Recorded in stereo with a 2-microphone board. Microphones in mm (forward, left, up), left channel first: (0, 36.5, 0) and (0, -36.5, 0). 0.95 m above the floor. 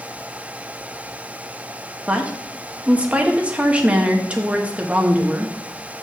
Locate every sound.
2.1 s a woman speaking: 20° right (ahead or behind), 1.3 m